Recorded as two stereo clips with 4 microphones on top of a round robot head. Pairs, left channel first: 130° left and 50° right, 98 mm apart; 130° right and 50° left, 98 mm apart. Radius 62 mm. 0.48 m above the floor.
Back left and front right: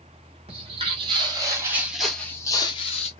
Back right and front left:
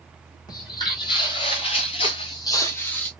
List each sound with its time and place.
0.5 s footsteps: 80° right, 1.0 m; by 3.1 s 150° left, 0.7 m